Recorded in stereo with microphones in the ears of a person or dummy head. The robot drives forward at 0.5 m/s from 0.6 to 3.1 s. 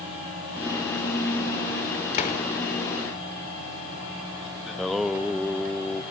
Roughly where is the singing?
Centre.